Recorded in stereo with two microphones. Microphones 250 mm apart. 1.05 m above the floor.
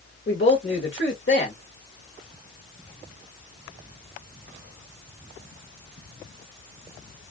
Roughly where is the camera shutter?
I don't hear a camera shutter.